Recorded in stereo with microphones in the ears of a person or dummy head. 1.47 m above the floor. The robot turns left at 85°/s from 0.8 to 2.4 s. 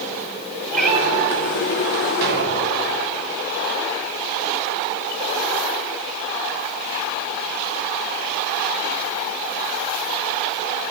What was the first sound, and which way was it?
A cat meowing, 5° left.